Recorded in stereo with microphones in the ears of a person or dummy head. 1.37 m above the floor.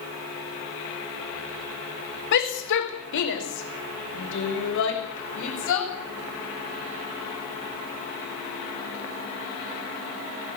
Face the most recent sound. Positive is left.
turn(degrees=75)  # may be behind; listen again after turning